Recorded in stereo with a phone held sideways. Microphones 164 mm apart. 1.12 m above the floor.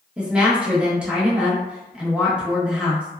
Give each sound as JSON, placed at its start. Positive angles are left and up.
{"t": 0.2, "sound": "a woman speaking", "side_deg": -5, "distance_m": 1.0}